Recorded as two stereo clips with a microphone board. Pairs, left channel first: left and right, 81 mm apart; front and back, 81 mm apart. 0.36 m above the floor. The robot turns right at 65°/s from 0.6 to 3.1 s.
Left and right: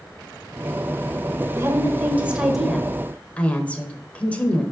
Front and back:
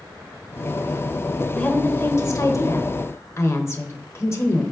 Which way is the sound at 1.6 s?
70° right.